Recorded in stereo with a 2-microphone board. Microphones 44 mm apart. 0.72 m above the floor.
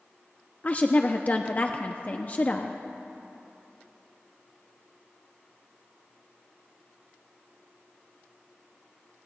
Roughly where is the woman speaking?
Left.